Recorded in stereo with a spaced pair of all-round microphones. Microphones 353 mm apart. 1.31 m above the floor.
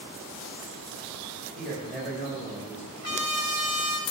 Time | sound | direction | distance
1.6 | a man speaking | centre (ahead or behind) | 5.5 m
3.0 | a trumpet | 45° left (ahead or behind) | 1.7 m